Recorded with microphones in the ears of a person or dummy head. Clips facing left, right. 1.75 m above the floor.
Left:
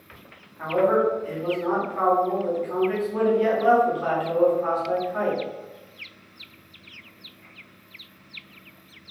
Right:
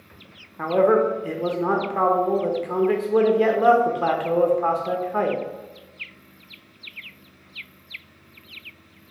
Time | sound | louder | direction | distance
0.6 | a man speaking | right 3 dB | 75° right (ahead or behind) | 1.0 m